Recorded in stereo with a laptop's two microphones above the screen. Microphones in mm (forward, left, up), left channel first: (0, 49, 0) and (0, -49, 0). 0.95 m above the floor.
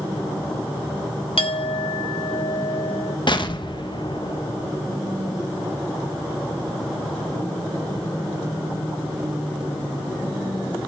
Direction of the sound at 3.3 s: 50° left (ahead or behind).